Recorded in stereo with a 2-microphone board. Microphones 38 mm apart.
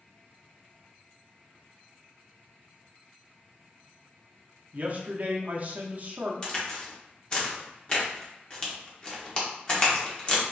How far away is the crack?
About 1.0 m.